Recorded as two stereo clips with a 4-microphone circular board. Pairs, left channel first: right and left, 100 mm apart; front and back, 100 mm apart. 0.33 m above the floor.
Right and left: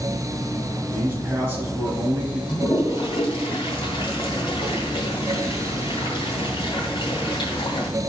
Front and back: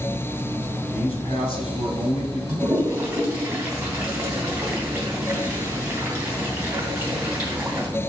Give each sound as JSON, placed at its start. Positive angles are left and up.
{"t": 0.9, "sound": "a man speaking", "azimuth_deg": 25, "distance_m": 3.5}
{"t": 2.5, "sound": "a toilet flushing", "azimuth_deg": -120, "distance_m": 3.0}